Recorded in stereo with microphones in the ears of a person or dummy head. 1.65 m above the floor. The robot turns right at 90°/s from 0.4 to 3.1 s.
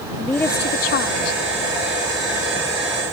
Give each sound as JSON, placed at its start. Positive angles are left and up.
{"t": 0.2, "sound": "a woman speaking", "azimuth_deg": 15}